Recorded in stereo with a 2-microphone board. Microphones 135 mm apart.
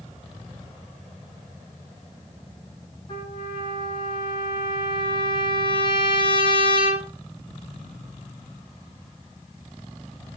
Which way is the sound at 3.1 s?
40° left (ahead or behind).